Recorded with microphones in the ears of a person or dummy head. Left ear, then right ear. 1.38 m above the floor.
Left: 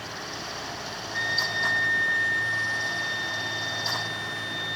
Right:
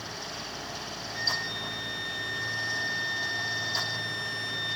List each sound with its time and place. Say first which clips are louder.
1.1 s a flute: left 5 dB; 30° left (ahead or behind), 1.2 m